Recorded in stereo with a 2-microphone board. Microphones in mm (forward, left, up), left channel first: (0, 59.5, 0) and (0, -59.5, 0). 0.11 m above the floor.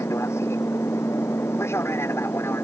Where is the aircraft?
25° left (ahead or behind); by 2.6 s 20° left (ahead or behind).